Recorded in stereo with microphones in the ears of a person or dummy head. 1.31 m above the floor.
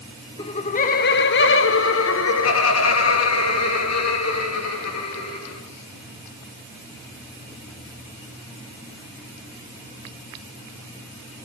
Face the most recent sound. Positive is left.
turn(degrees=80)